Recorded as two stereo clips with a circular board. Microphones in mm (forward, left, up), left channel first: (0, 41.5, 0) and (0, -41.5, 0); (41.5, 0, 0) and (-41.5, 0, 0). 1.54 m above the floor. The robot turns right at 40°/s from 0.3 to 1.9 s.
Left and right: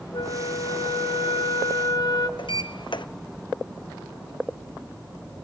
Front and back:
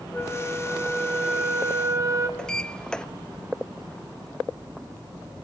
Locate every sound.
0.1 s a flute: 65° left, 2.0 m; by 2.3 s 130° left, 2.0 m
2.4 s a sliding door: 80° left, 0.9 m